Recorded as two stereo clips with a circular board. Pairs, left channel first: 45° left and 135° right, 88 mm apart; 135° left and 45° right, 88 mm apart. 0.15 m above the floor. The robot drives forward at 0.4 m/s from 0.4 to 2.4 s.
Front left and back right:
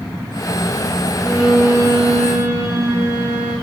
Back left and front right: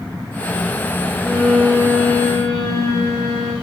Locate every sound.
1.2 s a violin: 150° right, 1.5 m; by 3.5 s 160° right, 1.8 m